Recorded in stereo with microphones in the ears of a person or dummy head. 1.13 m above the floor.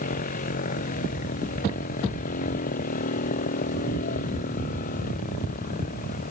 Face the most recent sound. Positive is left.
turn(degrees=40)  # may be behind; listen again after turning